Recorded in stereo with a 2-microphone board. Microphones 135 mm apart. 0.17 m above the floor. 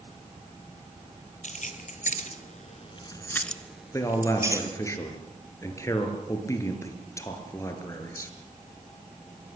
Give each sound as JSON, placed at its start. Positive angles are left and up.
{"t": 1.4, "sound": "keys jangling", "side_deg": 65, "distance_m": 2.5}
{"t": 3.9, "sound": "a man speaking", "side_deg": 20, "distance_m": 3.5}